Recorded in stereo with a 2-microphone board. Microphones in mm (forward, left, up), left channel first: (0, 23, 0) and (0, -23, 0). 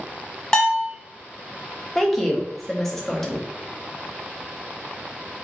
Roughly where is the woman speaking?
Centre.